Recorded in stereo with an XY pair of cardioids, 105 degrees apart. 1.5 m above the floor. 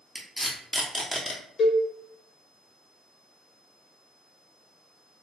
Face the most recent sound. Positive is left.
turn(degrees=60)